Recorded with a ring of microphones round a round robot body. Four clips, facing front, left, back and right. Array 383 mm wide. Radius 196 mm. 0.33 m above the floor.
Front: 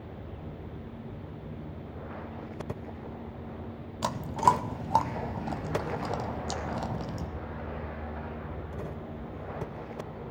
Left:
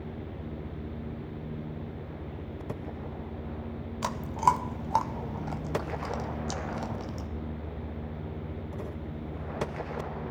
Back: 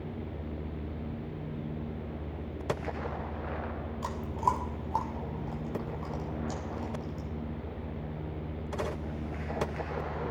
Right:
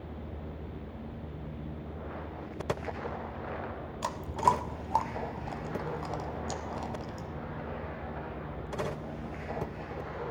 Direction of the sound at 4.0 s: 15° left.